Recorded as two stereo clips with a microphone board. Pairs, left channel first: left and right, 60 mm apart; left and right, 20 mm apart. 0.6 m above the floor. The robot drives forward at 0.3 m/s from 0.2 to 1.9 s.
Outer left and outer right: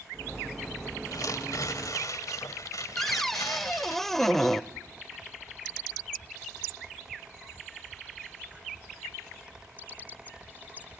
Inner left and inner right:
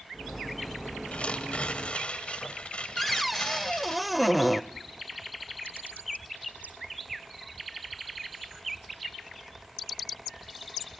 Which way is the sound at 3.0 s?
5° left (ahead or behind).